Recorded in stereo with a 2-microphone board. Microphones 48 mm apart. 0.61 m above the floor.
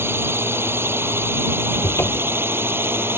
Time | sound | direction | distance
0.0 | a drone | 60° right (ahead or behind) | ?
1.8 | a cupboard door | 55° left (ahead or behind) | ?